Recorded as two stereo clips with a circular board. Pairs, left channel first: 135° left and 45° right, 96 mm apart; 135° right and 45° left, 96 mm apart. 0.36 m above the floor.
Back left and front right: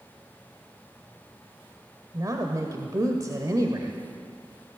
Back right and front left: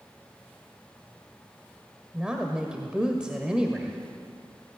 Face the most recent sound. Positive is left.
turn(degrees=-30)